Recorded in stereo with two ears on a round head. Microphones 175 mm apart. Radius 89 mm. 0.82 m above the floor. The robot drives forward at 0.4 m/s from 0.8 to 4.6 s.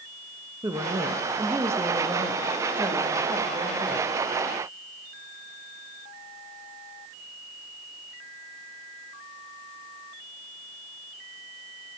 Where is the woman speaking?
15° right (ahead or behind), 1.1 m; by 4.2 s 10° right (ahead or behind), 2 m.